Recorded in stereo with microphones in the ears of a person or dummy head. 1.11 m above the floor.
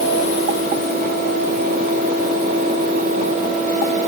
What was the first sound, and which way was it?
Only background noise.